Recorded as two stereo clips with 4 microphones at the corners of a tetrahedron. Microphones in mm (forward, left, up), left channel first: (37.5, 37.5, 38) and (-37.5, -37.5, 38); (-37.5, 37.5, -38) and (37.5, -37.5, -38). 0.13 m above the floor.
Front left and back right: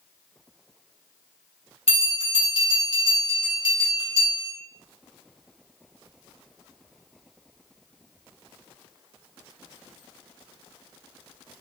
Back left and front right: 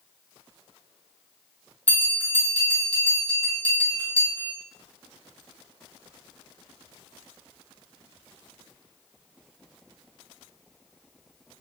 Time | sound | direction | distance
1.9 | a bell | 65° left | 2 m